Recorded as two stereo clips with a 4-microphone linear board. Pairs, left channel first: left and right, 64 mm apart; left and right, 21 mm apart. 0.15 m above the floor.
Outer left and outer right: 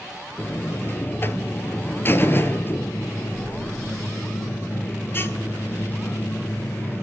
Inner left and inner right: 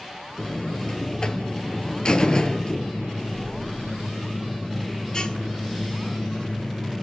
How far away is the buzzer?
About 0.5 m.